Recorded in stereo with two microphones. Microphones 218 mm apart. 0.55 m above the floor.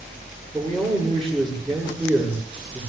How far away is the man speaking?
About 8 m.